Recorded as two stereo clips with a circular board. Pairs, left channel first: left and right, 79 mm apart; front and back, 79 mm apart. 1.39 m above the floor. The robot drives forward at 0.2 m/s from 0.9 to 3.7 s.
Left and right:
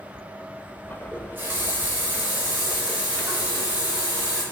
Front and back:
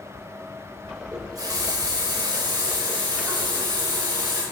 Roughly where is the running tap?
Behind right.